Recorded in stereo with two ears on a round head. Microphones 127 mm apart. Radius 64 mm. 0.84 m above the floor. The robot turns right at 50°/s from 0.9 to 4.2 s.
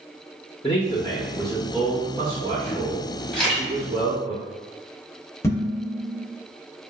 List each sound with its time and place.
0.6 s a man speaking: 145° left, 0.7 m; by 4.3 s 50° right, 0.7 m
3.3 s a camera shutter: 5° left (ahead or behind), 1.5 m; by 3.7 s 10° right (ahead or behind), 1.5 m
5.4 s dishes clattering: 20° left (ahead or behind), 0.6 m